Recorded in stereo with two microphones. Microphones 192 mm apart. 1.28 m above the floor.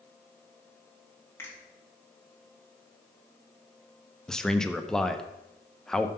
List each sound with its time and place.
1.4 s a finger snap: 10° left (ahead or behind), 3 m
4.3 s a man speaking: 5° left (ahead or behind), 0.7 m